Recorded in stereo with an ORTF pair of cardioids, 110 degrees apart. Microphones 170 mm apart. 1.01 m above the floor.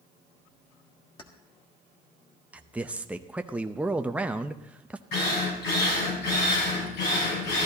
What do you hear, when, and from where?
1.2 s keys jangling: 30° left, 1.6 m
2.5 s a man speaking: 5° right, 0.6 m
5.1 s a drill: 70° left, 6.5 m